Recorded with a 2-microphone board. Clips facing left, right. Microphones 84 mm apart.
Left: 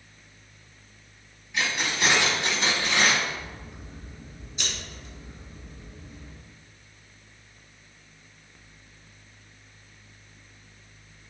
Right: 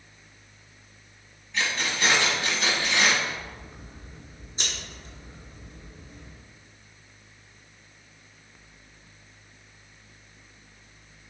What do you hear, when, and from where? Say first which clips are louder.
1.5 s keys jangling: even; 10° left (ahead or behind), 1.4 m; by 3.1 s 40° left (ahead or behind), 1.5 m
3.2 s scissors: even; 35° right (ahead or behind), 1.5 m